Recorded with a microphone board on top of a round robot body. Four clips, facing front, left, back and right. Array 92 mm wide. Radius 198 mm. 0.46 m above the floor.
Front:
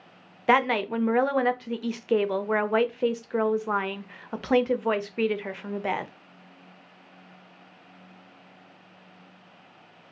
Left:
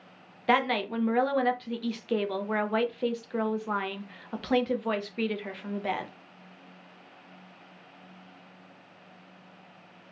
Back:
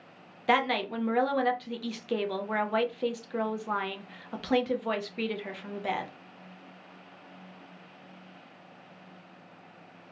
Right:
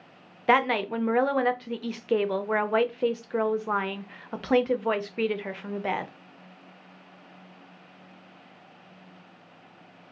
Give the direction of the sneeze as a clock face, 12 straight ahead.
No sneeze in this recording.